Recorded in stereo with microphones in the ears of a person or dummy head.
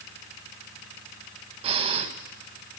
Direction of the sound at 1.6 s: 35° right (ahead or behind).